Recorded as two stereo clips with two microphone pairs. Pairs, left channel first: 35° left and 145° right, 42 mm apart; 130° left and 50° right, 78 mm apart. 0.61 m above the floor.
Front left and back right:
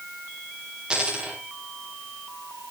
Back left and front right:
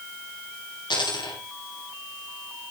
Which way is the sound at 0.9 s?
145° left.